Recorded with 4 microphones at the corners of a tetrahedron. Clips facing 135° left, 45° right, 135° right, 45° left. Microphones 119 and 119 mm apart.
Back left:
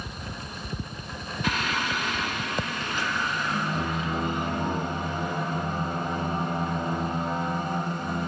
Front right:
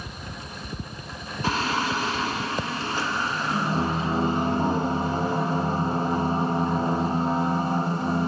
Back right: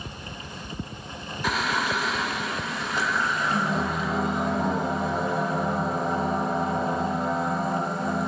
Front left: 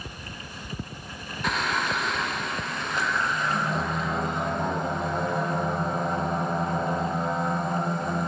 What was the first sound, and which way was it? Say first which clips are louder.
Singing: front right 4 dB, back right 1 dB; 50° right.